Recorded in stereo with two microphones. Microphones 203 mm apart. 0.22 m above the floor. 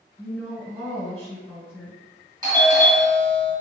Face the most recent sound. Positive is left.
turn(degrees=-20)  # may be behind; listen again after turning